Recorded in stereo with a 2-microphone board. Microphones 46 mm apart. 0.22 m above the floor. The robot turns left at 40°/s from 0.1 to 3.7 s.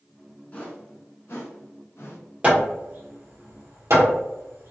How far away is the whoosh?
About 1.3 m.